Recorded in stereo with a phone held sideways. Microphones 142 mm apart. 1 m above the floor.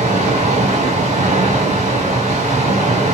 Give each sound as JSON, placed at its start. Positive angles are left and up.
{"t": 0.0, "sound": "running water", "side_deg": -55, "distance_m": 4.5}